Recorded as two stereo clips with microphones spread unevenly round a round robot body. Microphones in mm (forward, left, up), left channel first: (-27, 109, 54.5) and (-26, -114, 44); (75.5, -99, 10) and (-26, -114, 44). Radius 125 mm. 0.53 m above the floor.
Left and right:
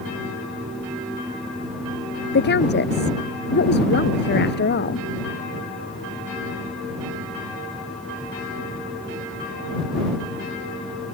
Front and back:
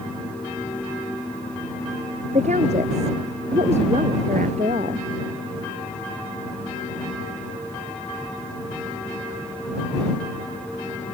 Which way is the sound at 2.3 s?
135° left.